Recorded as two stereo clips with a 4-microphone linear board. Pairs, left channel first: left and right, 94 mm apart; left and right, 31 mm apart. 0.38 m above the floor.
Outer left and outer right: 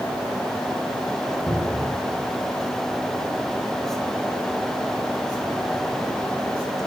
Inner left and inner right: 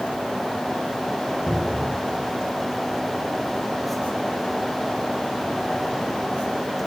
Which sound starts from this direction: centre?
A cupboard door, at 1.5 s.